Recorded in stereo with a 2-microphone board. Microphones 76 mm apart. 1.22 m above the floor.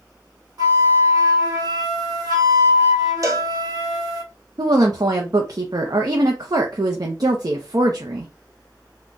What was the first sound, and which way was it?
A flute, 55° right (ahead or behind).